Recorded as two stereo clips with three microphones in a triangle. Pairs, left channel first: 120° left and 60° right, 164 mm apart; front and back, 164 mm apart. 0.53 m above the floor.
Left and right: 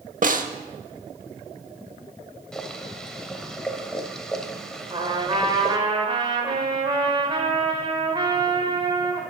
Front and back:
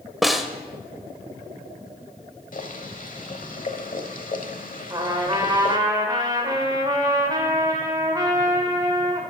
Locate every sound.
0.2 s a snare drum: 90° right, 0.6 m
2.5 s boiling: 35° left, 1.0 m
4.9 s a trumpet: 115° right, 1.5 m